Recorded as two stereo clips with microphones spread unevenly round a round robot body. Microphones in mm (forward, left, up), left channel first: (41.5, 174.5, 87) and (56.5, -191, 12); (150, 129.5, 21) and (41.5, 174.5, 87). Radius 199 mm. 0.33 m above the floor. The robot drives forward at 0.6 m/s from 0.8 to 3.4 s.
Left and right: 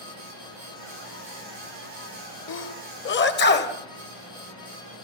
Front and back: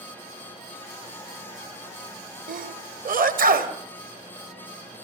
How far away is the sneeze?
About 2 m.